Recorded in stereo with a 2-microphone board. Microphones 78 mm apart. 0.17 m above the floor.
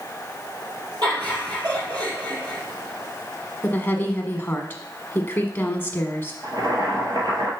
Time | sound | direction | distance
1.0 | laughter | 65° right (ahead or behind) | 4 m
3.6 | a woman speaking | 25° left (ahead or behind) | 1.3 m
6.4 | boiling | 65° right (ahead or behind) | 1.9 m